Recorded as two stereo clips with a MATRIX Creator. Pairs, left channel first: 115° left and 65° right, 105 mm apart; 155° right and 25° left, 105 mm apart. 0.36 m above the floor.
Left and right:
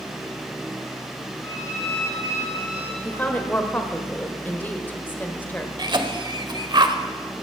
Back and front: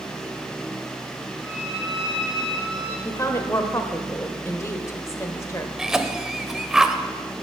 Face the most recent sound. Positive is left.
turn(degrees=-60)